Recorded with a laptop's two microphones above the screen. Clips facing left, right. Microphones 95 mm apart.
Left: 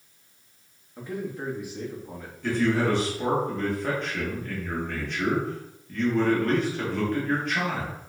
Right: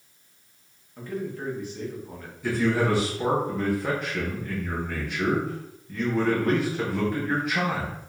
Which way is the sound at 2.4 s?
10° right (ahead or behind).